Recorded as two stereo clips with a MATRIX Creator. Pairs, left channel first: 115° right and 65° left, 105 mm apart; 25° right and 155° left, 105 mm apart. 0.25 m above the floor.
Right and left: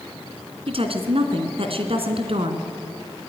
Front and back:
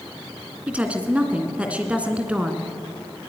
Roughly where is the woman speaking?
Left.